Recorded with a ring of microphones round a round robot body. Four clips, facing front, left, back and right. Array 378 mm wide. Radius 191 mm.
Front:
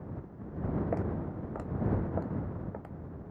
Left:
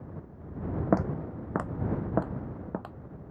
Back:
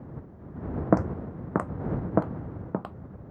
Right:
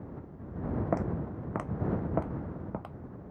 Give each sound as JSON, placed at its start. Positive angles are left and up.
{"t": 0.9, "sound": "footsteps", "azimuth_deg": 160}